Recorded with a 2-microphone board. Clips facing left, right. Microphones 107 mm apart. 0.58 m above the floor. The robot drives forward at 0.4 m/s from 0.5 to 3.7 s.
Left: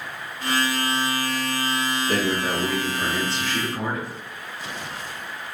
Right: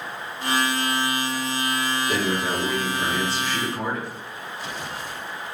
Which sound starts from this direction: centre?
A man speaking, at 2.1 s.